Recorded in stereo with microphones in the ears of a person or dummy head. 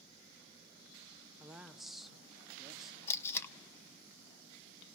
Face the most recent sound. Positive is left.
turn(degrees=15)  # may be behind; listen again after turning